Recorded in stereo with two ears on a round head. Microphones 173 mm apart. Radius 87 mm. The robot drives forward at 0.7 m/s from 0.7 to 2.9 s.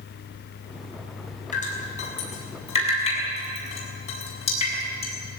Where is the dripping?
40° left (ahead or behind), 5.5 m; by 5.1 s 35° left (ahead or behind), 6.5 m.